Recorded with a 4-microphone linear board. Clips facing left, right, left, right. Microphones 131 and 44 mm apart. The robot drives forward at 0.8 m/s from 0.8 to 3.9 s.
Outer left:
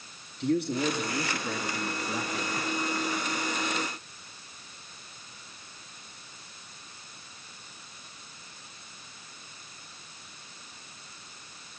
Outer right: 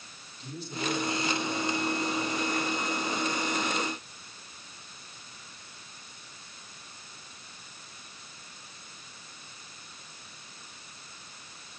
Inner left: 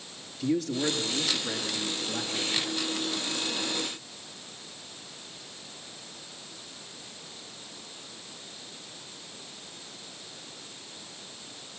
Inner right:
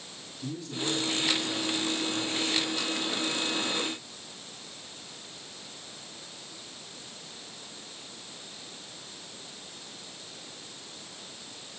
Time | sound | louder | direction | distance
0.4 | a man speaking | outer left 10 dB, inner left 7 dB | 70° left (ahead or behind) | 4.5 m